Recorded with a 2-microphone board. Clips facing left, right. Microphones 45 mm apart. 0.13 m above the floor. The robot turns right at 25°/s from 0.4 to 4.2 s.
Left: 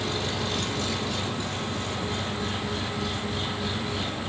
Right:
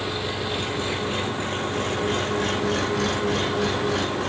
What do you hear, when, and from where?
0.0 s an engine running: 165° right, 1.9 m; by 4.3 s 70° right, 1.9 m